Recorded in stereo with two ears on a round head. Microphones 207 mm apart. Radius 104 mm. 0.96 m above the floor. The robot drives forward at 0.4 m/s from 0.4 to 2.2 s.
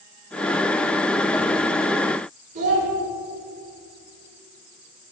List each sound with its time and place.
2.5 s a child speaking: 35° right (ahead or behind), 1.9 m